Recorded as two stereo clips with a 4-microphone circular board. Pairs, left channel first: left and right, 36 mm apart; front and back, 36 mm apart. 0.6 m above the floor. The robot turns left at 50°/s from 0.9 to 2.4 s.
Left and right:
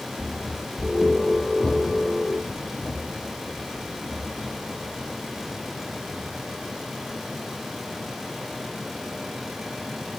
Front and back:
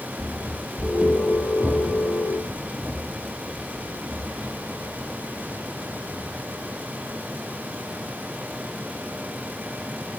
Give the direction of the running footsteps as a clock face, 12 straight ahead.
11 o'clock.